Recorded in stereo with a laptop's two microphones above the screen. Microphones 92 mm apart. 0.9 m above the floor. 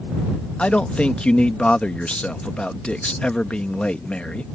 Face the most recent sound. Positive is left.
turn(degrees=10)  # may be behind; listen again after turning